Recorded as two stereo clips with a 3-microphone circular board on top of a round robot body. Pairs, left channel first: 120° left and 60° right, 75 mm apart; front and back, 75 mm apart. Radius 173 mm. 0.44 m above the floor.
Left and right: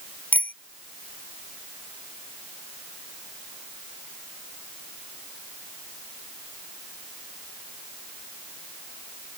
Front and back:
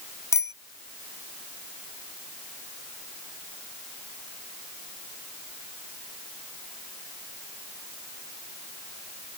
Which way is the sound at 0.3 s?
50° left.